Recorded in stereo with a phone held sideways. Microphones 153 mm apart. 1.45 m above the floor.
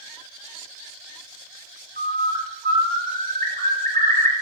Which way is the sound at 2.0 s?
65° right (ahead or behind).